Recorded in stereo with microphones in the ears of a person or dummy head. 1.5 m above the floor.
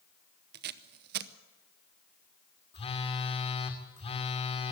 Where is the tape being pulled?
55° right (ahead or behind), 1.0 m.